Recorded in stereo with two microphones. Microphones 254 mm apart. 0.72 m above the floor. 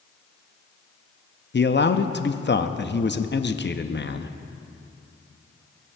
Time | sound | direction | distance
1.5 | a man speaking | 45° left (ahead or behind) | 0.6 m